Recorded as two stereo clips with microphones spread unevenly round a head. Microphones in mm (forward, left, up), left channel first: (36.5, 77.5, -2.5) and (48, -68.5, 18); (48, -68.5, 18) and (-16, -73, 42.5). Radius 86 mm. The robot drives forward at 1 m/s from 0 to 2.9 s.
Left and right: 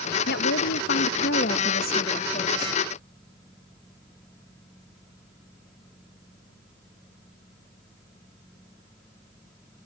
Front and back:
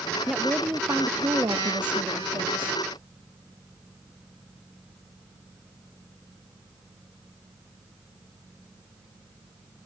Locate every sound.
0.3 s a woman speaking: 90° left; by 2.8 s 150° left